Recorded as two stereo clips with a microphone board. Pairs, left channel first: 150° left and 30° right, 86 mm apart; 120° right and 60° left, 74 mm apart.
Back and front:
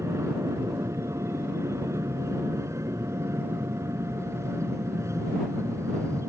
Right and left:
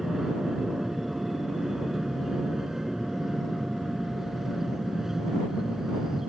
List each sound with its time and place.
0.0 s an aircraft: 20° right